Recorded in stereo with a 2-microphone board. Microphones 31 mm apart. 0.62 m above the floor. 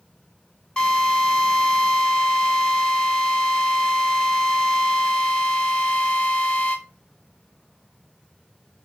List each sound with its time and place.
0.8 s a drill: 30° left (ahead or behind), 1.0 m